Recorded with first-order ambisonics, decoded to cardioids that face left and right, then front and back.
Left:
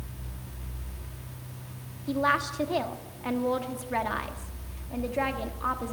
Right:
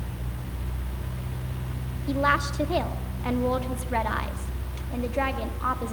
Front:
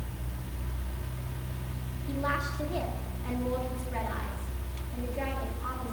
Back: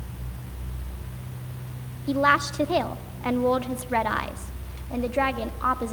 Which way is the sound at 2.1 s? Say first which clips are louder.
Right 2 dB, back 11 dB; 170° right.